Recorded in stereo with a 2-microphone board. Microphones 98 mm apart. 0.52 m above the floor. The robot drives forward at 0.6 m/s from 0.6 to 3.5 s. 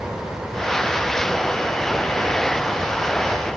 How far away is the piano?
I don't hear a piano.